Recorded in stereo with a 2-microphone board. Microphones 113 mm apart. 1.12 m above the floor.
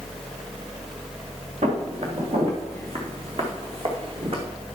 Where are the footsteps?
70° right (ahead or behind), 4.5 m; by 4.5 s 50° right (ahead or behind), 3.5 m.